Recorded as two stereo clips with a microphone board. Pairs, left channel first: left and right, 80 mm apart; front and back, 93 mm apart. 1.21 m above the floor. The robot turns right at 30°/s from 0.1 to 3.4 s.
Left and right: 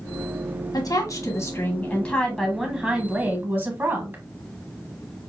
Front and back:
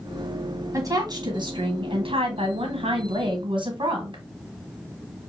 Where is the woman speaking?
130° left, 1.3 m; by 4.2 s 150° right, 1.3 m.